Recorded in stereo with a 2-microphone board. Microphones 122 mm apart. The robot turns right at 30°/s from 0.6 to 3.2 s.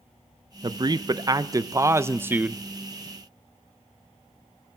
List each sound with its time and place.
0.6 s a man speaking: 80° right, 0.5 m; by 2.6 s 20° right, 0.5 m